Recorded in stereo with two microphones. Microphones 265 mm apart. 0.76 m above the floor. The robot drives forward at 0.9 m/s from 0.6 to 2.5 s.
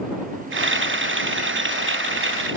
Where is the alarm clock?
I don't hear an alarm clock.